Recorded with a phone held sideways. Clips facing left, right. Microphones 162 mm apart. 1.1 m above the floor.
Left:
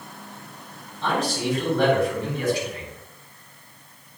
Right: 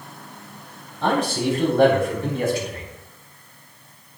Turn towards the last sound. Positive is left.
turn(degrees=-50)  # may be behind; listen again after turning